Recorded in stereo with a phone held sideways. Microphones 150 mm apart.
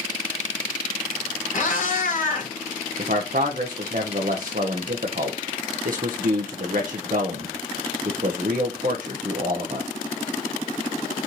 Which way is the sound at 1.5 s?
60° left (ahead or behind).